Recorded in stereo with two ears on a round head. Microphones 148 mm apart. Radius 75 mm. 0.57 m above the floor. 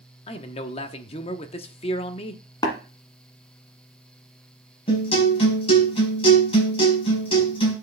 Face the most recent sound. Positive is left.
turn(degrees=35)  # may be behind; listen again after turning